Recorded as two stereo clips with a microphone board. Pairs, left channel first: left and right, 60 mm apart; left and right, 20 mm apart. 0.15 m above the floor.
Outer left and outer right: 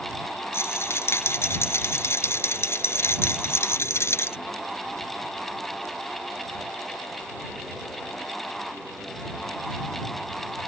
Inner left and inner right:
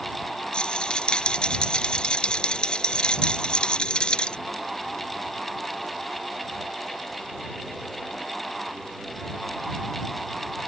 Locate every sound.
0.5 s a rattle: 45° left (ahead or behind)